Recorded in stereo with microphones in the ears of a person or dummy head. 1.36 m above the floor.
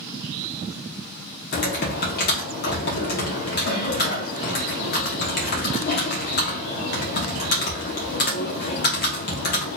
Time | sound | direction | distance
1.5 | typing on a keyboard | 50° left (ahead or behind) | 1.0 m